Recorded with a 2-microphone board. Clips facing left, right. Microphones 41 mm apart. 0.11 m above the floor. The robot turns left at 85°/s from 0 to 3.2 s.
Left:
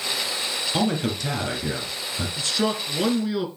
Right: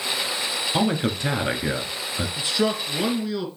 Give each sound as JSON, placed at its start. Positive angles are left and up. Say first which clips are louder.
{"t": 0.7, "sound": "a man speaking", "louder": "right 1 dB", "azimuth_deg": -10, "distance_m": 1.4}
{"t": 2.4, "sound": "a man speaking", "louder": "right 1 dB", "side_deg": -15, "distance_m": 1.3}